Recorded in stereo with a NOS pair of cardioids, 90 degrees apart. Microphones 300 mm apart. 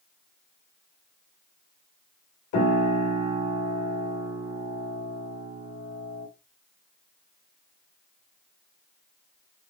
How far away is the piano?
About 1.4 m.